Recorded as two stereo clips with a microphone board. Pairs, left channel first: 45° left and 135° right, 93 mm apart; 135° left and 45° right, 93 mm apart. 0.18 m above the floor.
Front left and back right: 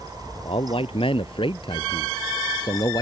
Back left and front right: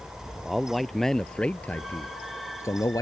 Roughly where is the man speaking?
Ahead left.